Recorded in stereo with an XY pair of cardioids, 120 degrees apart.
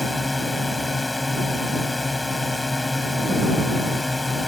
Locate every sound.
0.0 s a drone: 10° left